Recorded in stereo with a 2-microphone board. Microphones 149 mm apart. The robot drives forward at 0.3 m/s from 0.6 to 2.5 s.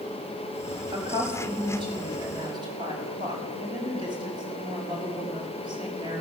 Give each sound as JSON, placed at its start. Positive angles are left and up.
{"t": 0.9, "sound": "a woman speaking", "side_deg": -35, "distance_m": 5.5}